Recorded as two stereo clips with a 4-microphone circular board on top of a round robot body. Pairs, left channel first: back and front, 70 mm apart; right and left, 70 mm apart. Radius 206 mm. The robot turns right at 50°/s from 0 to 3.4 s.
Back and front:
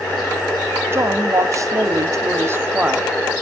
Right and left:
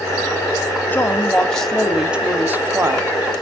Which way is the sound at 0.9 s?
40° right.